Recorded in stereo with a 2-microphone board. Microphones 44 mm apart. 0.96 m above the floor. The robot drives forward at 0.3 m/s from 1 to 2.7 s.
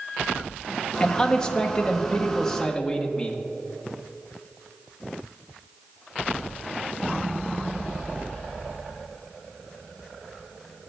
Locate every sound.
1.0 s a man speaking: 15° left (ahead or behind), 0.6 m; by 3.4 s 10° left (ahead or behind), 0.9 m